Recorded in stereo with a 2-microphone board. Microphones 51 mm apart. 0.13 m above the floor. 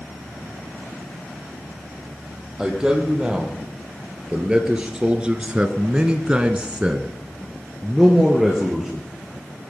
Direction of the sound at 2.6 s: 10° right (ahead or behind).